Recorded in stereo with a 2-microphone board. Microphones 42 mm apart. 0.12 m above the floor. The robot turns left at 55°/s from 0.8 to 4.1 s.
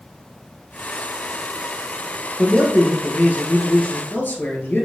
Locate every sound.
2.4 s a man speaking: 165° left, 1.9 m; by 4.8 s 70° left, 1.9 m